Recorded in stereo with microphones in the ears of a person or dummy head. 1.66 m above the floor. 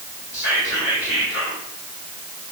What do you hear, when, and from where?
0.3 s whispering: 45° left (ahead or behind), 1.2 m